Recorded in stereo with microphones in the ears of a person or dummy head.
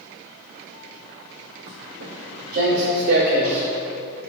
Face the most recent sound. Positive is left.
turn(degrees=-50)  # may be behind; listen again after turning